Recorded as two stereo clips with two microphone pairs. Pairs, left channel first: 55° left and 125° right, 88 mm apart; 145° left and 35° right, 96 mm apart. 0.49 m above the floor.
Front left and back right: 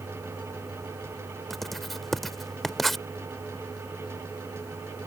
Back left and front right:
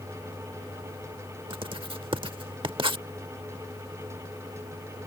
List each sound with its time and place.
1.5 s writing: 35° right